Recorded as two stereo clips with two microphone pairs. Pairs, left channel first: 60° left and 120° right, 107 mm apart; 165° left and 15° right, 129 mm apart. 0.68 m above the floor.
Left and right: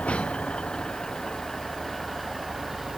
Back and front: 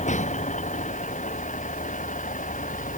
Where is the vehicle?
140° left; by 3.0 s 155° left.